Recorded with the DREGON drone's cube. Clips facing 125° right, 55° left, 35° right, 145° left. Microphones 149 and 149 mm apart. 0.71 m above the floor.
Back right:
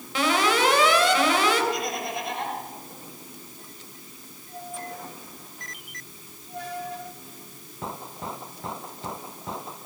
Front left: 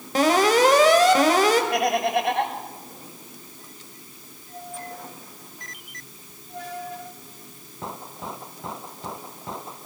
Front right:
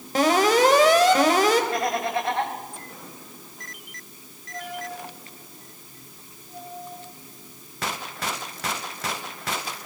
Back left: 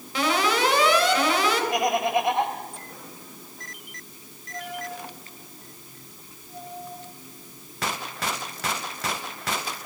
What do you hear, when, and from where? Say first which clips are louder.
0.1 s an alarm: front left 5 dB, front right 5 dB; 10° left, 3 m
1.7 s laughter: front left 8 dB, back left 2 dB; 70° left, 4 m